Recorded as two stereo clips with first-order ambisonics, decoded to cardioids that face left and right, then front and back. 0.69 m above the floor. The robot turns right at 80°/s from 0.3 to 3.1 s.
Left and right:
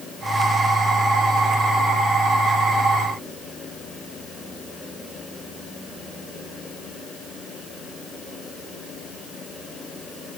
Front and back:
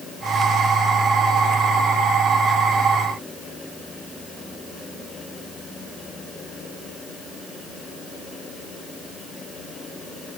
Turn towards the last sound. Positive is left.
No sound to turn to.